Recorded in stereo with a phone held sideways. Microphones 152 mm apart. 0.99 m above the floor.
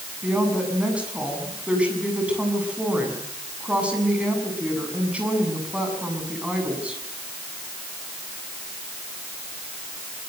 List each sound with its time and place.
0.2 s a woman speaking: 10° right (ahead or behind), 7.5 m